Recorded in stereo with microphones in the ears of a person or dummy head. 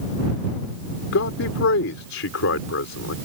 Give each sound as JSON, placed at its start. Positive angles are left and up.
{"t": 1.1, "sound": "a man speaking", "side_deg": 70}